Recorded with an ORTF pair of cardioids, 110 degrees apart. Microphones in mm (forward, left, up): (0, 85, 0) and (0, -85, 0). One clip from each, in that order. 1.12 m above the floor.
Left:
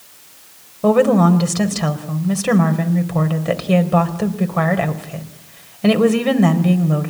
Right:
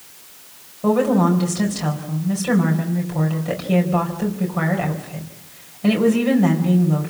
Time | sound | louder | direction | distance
0.8 | a woman speaking | left 4 dB | 45° left | 4.5 m